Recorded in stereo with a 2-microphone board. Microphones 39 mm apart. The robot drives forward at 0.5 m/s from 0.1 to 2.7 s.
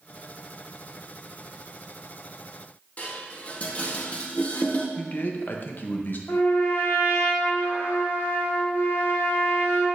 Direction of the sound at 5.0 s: 50° left (ahead or behind).